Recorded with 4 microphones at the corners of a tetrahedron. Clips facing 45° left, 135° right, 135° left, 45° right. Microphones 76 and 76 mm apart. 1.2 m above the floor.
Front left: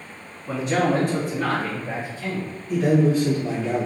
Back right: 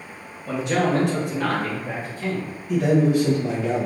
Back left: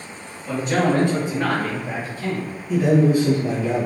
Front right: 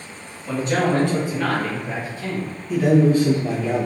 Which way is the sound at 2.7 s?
155° right.